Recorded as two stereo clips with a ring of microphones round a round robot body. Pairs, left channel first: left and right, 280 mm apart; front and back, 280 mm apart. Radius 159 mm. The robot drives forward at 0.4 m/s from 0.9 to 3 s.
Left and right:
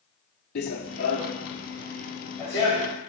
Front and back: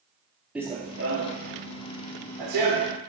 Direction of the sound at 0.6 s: 95° left.